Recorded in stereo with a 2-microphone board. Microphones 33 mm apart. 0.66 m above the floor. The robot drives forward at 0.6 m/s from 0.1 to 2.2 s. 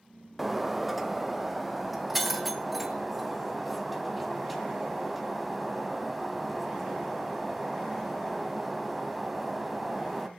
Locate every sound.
0.4 s breaking glass: 5° right (ahead or behind), 1.1 m